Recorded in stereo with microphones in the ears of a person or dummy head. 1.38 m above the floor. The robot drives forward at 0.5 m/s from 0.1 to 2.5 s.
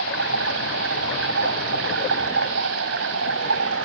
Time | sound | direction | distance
0.0 | running water | 70° right (ahead or behind) | ?